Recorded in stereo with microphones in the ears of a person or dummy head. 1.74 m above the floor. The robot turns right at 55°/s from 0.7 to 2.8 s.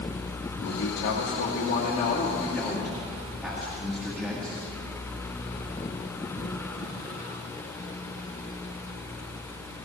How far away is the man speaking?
About 2 m.